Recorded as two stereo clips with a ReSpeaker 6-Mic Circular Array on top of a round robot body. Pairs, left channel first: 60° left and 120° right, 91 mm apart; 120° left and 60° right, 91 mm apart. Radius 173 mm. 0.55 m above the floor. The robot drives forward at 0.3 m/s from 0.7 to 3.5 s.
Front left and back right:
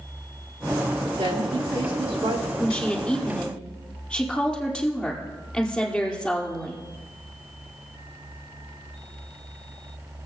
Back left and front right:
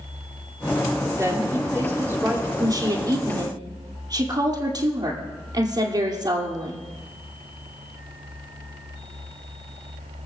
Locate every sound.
1.2 s a woman speaking: 115° right, 2.5 m; by 2.5 s 125° right, 2.5 m
2.6 s a woman speaking: 20° right, 2.5 m; by 6.8 s 25° right, 2.5 m